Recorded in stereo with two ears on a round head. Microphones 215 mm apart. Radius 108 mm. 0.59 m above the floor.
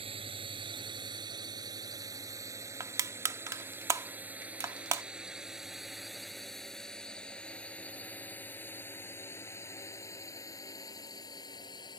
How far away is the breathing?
I don't hear breathing.